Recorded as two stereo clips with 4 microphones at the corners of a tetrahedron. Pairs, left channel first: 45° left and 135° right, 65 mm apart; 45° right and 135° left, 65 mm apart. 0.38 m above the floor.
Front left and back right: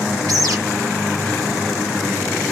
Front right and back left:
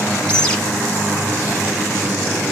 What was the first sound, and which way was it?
A bird, 120° right.